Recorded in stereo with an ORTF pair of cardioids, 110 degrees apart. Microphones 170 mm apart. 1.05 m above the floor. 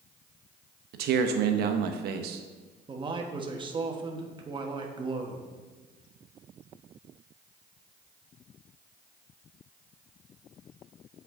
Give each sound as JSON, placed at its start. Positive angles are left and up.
{"t": 0.9, "sound": "a man speaking", "azimuth_deg": -70, "distance_m": 0.9}
{"t": 2.9, "sound": "a man speaking", "azimuth_deg": -30, "distance_m": 1.2}